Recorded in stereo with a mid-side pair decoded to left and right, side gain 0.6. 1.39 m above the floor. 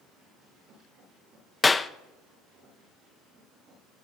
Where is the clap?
20° left, 0.6 m.